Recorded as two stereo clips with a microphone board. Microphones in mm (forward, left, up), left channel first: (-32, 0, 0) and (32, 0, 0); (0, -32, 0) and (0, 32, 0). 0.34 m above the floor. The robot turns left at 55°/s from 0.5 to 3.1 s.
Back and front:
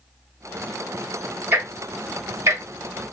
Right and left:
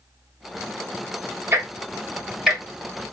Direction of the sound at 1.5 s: 45° left.